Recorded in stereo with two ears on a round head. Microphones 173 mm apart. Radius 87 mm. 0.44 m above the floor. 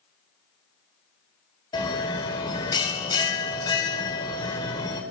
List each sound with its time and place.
1.7 s a bell: 25° left (ahead or behind), 2 m